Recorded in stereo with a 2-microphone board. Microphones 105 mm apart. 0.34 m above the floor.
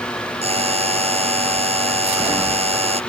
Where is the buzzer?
80° right.